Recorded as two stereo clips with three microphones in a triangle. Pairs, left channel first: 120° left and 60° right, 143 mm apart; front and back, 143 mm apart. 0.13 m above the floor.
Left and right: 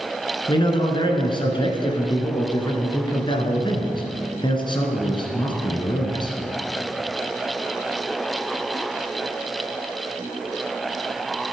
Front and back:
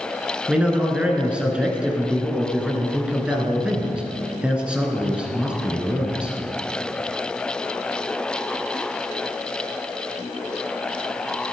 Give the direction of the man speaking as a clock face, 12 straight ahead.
9 o'clock.